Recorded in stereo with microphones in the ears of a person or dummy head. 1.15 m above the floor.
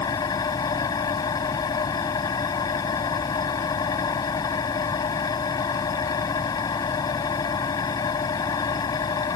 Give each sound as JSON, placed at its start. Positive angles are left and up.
{"t": 0.0, "sound": "an engine running", "side_deg": 25}